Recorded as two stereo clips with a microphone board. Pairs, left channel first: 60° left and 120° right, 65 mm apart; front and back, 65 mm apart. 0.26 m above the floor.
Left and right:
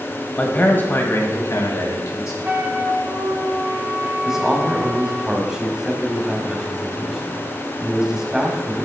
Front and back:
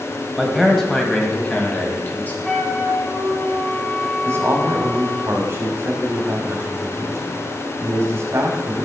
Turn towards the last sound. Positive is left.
turn(degrees=160)